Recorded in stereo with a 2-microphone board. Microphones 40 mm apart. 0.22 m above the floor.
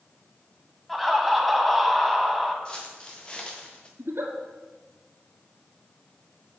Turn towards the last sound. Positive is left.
turn(degrees=-75)  # may be behind; listen again after turning